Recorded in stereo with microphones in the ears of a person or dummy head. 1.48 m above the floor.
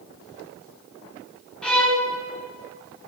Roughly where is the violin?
Centre.